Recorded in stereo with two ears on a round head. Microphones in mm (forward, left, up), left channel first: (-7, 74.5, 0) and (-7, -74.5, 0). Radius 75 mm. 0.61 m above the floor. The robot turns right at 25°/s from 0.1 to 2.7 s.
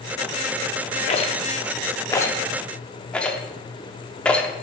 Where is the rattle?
40° left (ahead or behind), 0.6 m; by 4.5 s 10° left (ahead or behind), 0.6 m.